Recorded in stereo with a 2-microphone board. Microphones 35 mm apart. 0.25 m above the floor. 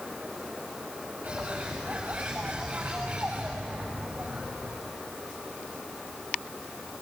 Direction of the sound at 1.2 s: 40° right (ahead or behind).